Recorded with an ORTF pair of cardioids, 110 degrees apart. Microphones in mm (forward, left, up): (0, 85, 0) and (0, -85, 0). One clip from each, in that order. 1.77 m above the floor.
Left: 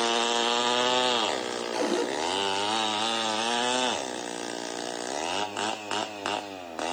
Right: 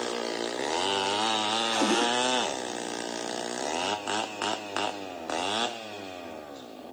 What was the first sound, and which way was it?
A cupboard door, 60° right.